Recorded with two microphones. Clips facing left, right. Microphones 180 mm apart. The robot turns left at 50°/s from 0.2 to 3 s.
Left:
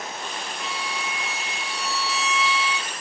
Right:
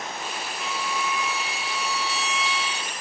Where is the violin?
Straight behind, 4 m; by 2.9 s 65° left, 4 m.